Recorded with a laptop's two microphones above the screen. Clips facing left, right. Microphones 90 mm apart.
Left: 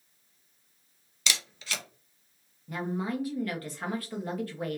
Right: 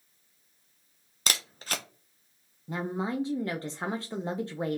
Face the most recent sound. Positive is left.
turn(degrees=-25)  # may be behind; listen again after turning